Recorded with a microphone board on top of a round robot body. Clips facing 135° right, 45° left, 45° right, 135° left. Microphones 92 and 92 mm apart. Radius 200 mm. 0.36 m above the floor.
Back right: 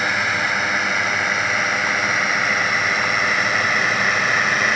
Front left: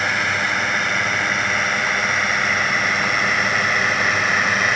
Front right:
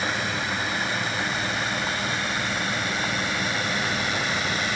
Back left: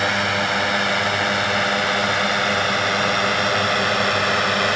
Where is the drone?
140° left; by 4.8 s 135° left.